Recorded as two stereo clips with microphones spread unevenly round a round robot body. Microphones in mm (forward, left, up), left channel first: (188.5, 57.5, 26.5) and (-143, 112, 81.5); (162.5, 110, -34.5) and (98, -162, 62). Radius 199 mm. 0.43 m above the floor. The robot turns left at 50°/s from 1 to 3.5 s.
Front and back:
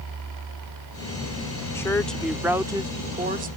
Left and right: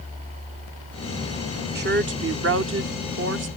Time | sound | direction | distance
1.8 | a woman speaking | 55° right | ?